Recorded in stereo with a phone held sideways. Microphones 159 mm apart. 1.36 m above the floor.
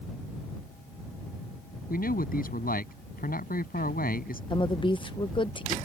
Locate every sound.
1.9 s a man speaking: 65° left (ahead or behind)
4.5 s a woman speaking: 30° left (ahead or behind)